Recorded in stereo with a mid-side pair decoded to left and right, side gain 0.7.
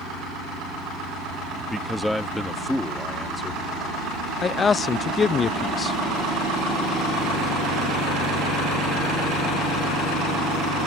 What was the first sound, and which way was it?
A man speaking, straight ahead.